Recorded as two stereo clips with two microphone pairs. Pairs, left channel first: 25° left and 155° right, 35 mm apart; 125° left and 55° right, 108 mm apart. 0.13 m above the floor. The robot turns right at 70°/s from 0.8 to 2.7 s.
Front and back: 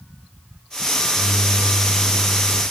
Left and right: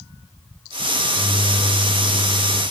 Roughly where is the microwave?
Ahead.